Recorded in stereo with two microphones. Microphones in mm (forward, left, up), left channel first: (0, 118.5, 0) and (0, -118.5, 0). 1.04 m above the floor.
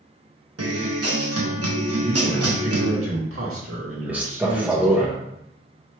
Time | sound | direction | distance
0.6 | a guitar | 80° right | 0.8 m
2.0 | a man speaking | 65° right (ahead or behind) | 1.6 m
4.1 | a man speaking | 5° right (ahead or behind) | 0.6 m